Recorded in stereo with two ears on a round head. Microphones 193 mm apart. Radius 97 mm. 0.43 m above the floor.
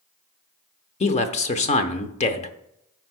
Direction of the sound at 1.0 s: 30° left (ahead or behind).